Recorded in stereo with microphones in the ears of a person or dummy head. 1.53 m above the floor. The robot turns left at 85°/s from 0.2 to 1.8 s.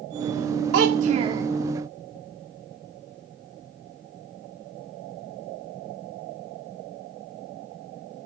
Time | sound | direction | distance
0.7 | a child speaking | 100° right | 0.7 m